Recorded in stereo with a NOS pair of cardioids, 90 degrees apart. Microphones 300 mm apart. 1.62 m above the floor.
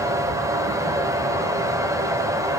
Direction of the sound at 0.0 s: 10° right.